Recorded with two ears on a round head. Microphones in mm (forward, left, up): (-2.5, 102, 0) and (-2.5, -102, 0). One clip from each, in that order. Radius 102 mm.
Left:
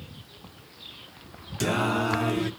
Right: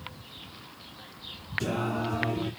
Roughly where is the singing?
Left.